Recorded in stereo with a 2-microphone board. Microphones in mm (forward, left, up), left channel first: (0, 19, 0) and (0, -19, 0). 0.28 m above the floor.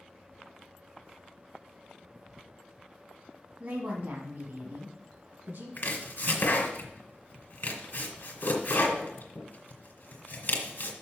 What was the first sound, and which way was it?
A woman speaking, 50° right (ahead or behind).